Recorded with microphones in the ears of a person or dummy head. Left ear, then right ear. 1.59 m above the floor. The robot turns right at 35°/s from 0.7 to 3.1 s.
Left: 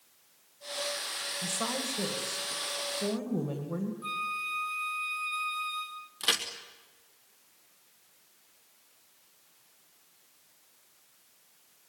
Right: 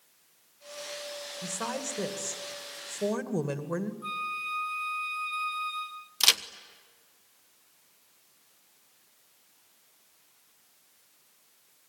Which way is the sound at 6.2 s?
45° right (ahead or behind).